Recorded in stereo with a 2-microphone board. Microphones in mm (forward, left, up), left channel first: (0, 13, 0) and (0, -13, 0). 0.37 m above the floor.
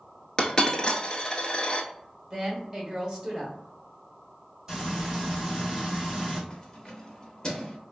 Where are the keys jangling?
30° left (ahead or behind), 0.6 m.